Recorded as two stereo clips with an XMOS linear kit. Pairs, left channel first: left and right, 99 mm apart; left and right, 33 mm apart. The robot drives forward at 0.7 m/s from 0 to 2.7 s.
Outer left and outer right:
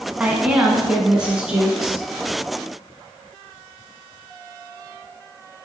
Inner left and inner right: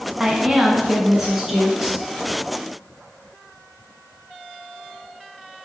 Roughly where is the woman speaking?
Centre.